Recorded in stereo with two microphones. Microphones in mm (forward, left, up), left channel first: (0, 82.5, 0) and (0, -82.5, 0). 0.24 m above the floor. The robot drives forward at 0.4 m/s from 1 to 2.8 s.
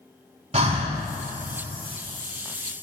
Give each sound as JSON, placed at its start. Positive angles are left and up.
{"t": 0.5, "sound": "breathing", "side_deg": -40, "distance_m": 0.8}